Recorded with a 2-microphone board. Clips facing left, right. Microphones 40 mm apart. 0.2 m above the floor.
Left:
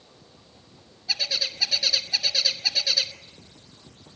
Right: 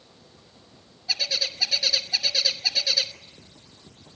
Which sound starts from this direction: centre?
A bird, at 1.1 s.